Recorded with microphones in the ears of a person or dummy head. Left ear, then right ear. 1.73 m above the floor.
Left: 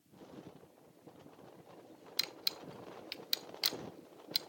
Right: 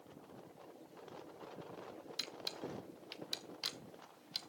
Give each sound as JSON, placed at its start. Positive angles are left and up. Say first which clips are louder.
{"t": 2.2, "sound": "a camera shutter", "louder": "left 6 dB", "side_deg": 20, "distance_m": 0.5}